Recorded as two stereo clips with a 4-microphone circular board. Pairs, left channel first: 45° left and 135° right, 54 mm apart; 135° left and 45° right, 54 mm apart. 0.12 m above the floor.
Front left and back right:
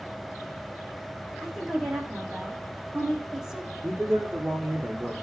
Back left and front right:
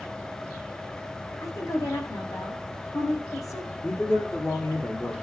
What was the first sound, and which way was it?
A woman speaking, 145° left.